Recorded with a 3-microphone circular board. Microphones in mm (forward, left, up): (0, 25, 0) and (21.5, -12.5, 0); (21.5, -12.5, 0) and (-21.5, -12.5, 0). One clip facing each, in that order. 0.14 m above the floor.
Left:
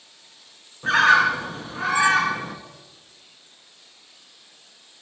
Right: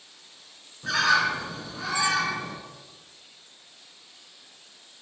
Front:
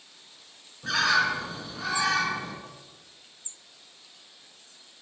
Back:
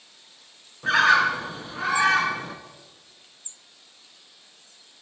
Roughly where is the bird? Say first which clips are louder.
Left 6 dB, back 6 dB; behind left.